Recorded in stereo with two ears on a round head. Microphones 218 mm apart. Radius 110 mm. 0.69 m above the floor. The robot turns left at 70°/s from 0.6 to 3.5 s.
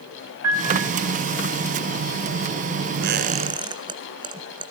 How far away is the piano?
About 4.5 m.